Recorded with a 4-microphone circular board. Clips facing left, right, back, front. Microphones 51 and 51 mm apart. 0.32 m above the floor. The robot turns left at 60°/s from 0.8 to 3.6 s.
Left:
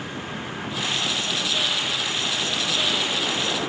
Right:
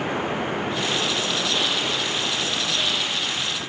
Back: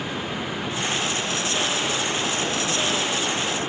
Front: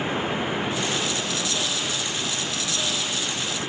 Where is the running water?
65° right; by 3.7 s 125° left.